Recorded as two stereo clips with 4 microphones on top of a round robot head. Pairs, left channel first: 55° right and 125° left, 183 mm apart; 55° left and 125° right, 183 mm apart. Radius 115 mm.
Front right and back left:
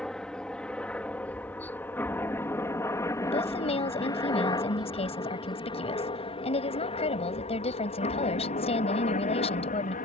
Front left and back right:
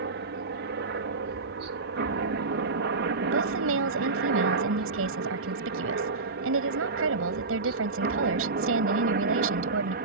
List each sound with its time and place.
0.0 s a helicopter: 140° right; by 10.1 s 95° right
3.3 s a woman speaking: 115° right